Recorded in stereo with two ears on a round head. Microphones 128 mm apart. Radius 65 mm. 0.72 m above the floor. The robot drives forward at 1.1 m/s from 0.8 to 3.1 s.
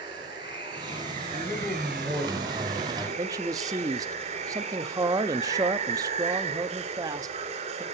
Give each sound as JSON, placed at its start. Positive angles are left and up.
{"t": 0.0, "sound": "running water", "side_deg": -30, "distance_m": 2.0}
{"t": 1.3, "sound": "a man speaking", "side_deg": -5, "distance_m": 1.1}
{"t": 3.2, "sound": "a man speaking", "side_deg": -25, "distance_m": 0.7}